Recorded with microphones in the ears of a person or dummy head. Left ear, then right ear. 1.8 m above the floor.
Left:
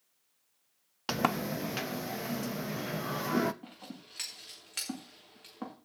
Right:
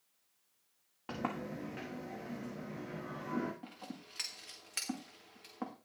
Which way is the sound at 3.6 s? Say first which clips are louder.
Left 1 dB; 15° right (ahead or behind).